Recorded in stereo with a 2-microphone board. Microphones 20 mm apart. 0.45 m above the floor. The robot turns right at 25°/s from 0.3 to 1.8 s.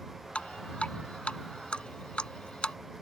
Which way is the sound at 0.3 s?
80° left.